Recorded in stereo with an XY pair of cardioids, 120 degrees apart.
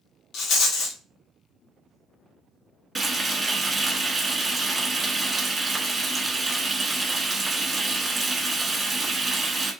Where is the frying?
20° right, 1.3 m.